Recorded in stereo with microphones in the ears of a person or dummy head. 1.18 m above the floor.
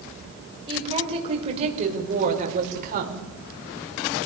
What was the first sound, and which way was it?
A woman speaking, 30° right (ahead or behind).